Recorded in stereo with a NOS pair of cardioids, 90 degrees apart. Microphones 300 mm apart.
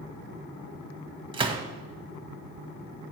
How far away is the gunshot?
About 1.7 m.